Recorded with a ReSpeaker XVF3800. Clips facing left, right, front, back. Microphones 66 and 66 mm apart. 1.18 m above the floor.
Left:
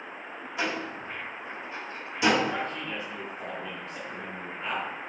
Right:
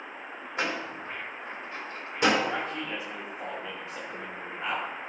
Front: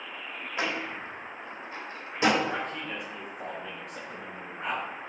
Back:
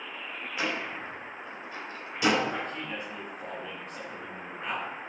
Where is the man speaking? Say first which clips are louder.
Even, front 1 dB; 20° right, 4.5 m.